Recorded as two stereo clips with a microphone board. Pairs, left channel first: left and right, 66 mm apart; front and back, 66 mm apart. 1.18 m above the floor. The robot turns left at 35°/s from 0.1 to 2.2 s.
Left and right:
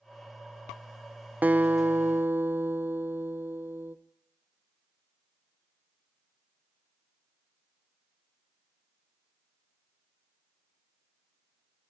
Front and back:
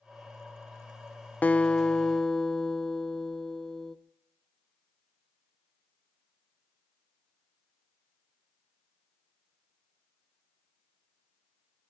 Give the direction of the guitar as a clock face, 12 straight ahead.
2 o'clock.